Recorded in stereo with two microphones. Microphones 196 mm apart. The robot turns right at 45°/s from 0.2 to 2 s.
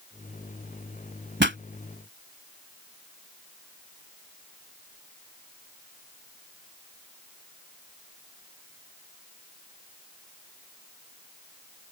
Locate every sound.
1.4 s a pop: 65° right (ahead or behind); by 1.6 s 70° right (ahead or behind)